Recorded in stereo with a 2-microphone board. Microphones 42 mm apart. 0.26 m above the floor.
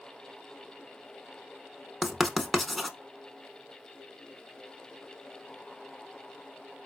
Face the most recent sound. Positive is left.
turn(degrees=5)  # may be behind; listen again after turning